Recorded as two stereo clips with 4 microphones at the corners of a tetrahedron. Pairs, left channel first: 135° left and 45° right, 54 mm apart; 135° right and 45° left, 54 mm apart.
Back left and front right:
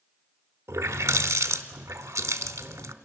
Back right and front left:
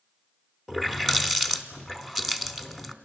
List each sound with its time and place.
0.7 s a running tap: 40° right, 0.9 m